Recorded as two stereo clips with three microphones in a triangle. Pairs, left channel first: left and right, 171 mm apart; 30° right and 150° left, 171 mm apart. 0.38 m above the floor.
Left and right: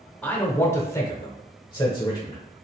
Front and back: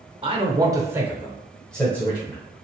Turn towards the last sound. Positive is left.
turn(degrees=35)